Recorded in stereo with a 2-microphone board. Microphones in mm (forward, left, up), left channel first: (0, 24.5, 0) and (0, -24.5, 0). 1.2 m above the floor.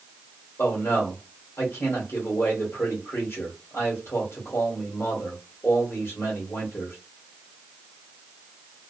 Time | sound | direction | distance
0.6 | a man speaking | 60° left (ahead or behind) | 1.3 m